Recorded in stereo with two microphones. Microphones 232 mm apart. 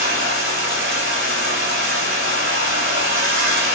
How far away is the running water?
About 1.9 m.